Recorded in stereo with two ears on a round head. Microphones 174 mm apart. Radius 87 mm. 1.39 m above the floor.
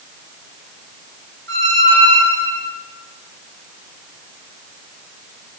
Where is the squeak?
65° right (ahead or behind), 1.3 m.